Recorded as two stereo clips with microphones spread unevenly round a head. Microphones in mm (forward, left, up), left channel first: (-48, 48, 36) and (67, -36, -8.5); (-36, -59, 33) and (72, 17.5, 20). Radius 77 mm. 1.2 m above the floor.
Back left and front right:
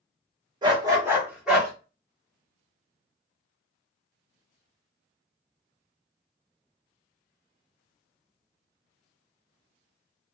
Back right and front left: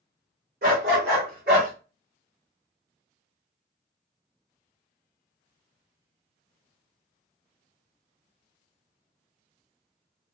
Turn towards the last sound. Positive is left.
turn(degrees=65)